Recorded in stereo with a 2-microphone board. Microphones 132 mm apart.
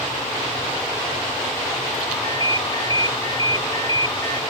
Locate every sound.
2.1 s a ringtone: 30° left (ahead or behind)